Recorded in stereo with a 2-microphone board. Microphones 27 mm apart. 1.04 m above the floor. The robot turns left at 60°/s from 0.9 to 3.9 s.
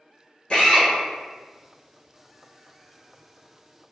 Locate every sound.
0.5 s a drill: 40° left (ahead or behind), 1.7 m